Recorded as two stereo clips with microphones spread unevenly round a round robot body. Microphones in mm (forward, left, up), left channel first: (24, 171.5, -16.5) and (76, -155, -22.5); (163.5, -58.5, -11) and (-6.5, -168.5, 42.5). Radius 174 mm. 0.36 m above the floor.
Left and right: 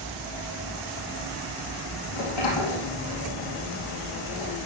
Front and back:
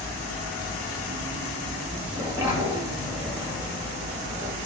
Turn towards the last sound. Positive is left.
turn(degrees=125)